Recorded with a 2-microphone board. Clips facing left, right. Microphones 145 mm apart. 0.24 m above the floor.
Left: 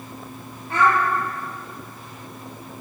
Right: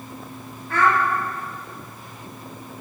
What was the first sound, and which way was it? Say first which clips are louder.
A child speaking: left 1 dB; 25° left (ahead or behind).